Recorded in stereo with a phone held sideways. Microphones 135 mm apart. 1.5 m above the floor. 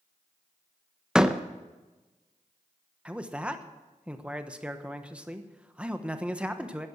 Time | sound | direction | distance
1.1 | a door slam | 5° right (ahead or behind) | 0.7 m
3.0 | a man speaking | 10° right (ahead or behind) | 1.1 m